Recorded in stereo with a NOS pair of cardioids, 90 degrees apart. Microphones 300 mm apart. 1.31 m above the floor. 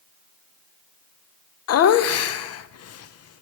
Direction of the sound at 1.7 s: 50° left.